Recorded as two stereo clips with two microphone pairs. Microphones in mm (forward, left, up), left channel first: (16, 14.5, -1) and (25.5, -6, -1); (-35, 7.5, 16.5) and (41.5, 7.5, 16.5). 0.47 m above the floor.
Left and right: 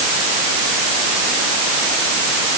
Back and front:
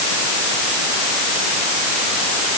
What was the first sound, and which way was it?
Only background noise.